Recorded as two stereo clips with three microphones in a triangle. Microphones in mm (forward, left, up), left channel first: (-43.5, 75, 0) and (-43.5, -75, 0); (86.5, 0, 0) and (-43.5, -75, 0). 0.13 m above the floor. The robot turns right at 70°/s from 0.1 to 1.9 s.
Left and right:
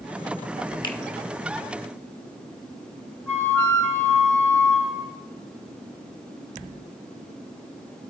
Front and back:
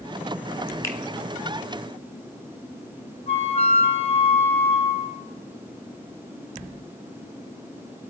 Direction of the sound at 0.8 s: 80° left.